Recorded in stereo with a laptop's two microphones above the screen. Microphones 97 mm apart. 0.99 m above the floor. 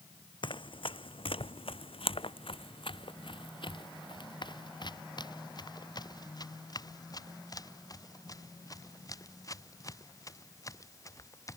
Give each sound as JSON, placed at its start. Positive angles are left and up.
{"t": 0.4, "sound": "running footsteps", "side_deg": 60}